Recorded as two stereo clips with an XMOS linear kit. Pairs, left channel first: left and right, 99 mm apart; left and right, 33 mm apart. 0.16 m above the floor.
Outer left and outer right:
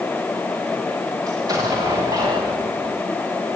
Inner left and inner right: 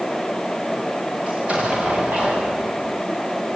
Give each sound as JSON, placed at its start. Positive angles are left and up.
{"t": 1.3, "sound": "an explosion", "side_deg": -40, "distance_m": 9.5}